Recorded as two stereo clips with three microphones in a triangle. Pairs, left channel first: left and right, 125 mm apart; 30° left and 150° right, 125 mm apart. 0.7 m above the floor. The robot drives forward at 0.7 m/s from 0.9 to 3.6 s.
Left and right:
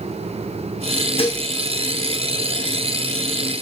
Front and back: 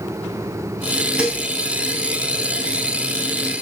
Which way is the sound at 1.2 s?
130° left.